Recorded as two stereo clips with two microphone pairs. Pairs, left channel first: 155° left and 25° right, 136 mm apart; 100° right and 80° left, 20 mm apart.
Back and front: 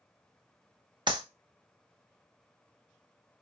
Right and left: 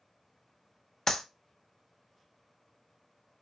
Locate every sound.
1.1 s a clap: 55° right, 0.6 m